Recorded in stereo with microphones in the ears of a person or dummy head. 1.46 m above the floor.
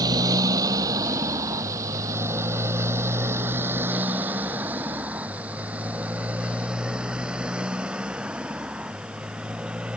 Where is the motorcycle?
20° right (ahead or behind); by 10.0 s 5° right (ahead or behind).